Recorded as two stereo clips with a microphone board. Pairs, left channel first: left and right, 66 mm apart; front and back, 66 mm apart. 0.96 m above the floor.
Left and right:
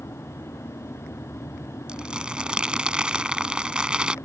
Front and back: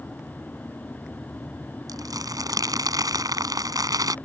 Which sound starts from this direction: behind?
Crumpling, at 1.9 s.